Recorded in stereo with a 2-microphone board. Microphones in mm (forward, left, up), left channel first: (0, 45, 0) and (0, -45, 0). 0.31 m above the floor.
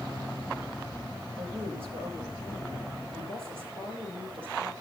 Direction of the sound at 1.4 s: 80° right.